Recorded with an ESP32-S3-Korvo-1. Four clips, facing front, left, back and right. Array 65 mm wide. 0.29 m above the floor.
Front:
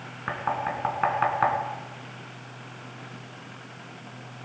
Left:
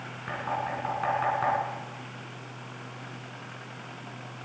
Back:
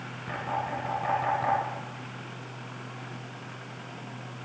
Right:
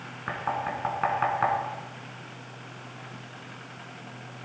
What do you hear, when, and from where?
0.3 s knocking: 20° right, 3 m